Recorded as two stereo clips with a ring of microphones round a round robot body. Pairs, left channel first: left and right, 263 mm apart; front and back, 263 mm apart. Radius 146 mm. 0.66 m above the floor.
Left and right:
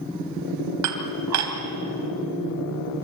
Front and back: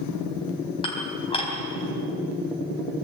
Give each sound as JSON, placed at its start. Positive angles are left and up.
{"t": 0.8, "sound": "dishes clattering", "azimuth_deg": -75, "distance_m": 3.5}